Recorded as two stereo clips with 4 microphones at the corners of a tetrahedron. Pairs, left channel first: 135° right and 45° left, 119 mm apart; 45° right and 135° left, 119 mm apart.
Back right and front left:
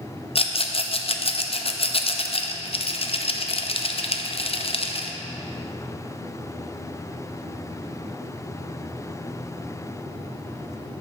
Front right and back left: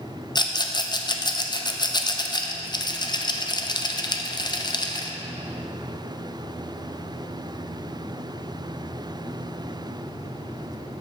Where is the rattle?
100° right, 0.6 m.